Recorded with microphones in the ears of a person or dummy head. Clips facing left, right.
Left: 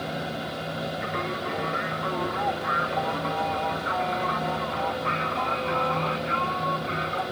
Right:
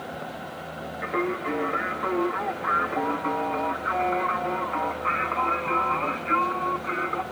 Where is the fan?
50° left (ahead or behind), 1.8 m.